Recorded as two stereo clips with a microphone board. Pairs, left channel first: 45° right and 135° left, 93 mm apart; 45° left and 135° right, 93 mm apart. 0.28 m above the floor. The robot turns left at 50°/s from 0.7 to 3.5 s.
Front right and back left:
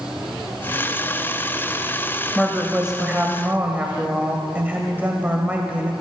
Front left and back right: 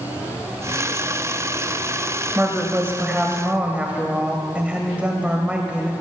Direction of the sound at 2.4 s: 130° right.